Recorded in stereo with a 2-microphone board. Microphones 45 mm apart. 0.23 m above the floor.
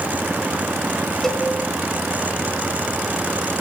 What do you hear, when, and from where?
1.2 s a cowbell: 10° left (ahead or behind), 1.9 m